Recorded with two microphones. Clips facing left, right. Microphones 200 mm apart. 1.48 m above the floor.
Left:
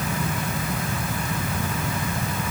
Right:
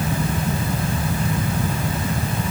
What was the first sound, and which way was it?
Only background noise.